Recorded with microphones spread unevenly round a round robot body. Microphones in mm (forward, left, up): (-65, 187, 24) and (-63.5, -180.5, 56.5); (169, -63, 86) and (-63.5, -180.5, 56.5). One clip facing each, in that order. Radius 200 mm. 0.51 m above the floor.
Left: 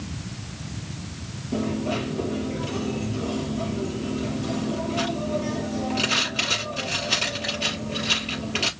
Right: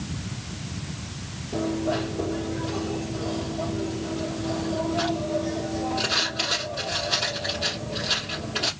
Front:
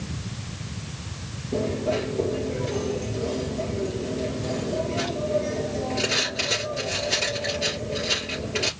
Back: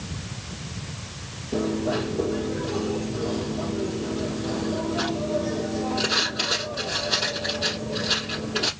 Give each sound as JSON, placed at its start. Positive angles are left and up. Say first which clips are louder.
{"t": 1.5, "sound": "a dropped coin", "louder": "even, back 1 dB", "azimuth_deg": 95, "distance_m": 5.0}